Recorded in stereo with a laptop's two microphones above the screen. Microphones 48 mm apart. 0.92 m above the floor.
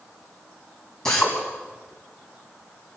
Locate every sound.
1.1 s a drill: 15° left (ahead or behind), 4 m